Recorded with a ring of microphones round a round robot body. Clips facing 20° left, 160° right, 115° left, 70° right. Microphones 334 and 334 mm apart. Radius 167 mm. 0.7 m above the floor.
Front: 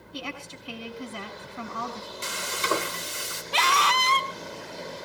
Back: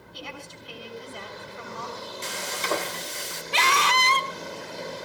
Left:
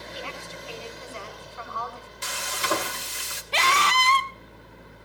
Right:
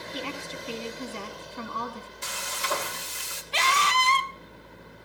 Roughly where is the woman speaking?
Ahead.